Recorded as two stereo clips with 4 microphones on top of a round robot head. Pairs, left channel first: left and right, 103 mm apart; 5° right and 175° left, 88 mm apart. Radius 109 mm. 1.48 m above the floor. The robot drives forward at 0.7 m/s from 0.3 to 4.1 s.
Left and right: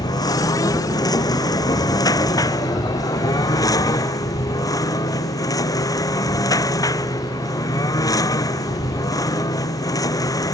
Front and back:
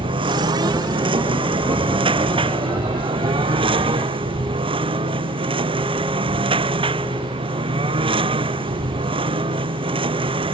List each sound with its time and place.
0.0 s a lawn mower: 145° left; by 10.5 s 150° left